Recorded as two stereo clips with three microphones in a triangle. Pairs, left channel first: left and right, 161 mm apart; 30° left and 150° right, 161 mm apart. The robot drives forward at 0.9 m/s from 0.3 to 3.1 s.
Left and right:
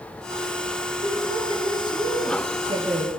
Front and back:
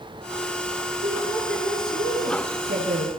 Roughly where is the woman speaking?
Behind right.